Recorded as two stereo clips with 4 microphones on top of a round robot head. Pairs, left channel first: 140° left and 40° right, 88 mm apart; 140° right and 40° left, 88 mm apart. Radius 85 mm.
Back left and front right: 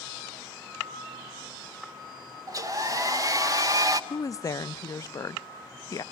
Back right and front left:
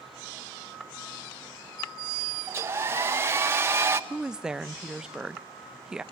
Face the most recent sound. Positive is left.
turn(degrees=120)